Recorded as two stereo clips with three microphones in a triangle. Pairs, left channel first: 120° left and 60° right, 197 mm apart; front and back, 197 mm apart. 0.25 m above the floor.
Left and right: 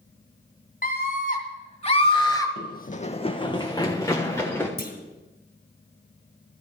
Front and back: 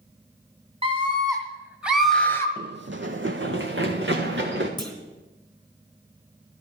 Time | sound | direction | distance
0.8 | a scream | 130° left | 2.0 m
2.6 | running footsteps | 145° left | 0.5 m
4.8 | a clunk | 115° left | 1.9 m